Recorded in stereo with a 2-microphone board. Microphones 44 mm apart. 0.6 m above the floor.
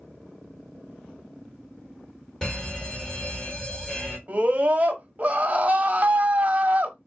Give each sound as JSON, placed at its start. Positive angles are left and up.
{"t": 2.4, "sound": "an alarm", "side_deg": 15, "distance_m": 1.6}
{"t": 4.3, "sound": "a scream", "side_deg": -35, "distance_m": 1.1}